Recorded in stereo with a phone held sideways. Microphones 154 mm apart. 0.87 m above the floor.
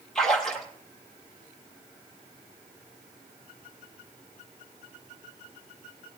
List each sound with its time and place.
0.1 s a splash: 5° left (ahead or behind), 5 m